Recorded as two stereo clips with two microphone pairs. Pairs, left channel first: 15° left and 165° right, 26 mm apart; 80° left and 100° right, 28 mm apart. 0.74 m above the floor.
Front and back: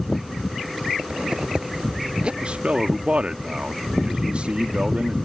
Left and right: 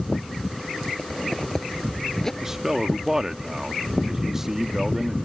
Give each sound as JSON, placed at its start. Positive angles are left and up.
{"t": 1.0, "sound": "a zipper", "azimuth_deg": 150}
{"t": 2.4, "sound": "a man speaking", "azimuth_deg": -175}